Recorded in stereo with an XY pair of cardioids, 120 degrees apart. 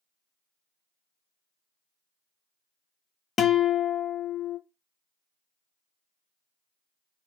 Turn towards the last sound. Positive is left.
turn(degrees=40)